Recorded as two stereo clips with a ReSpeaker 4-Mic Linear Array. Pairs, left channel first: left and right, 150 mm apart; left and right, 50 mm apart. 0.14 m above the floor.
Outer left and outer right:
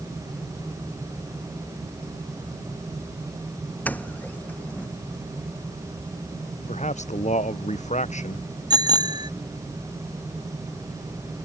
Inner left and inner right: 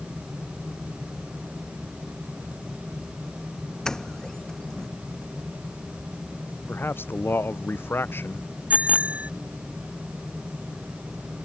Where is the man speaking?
50° left (ahead or behind).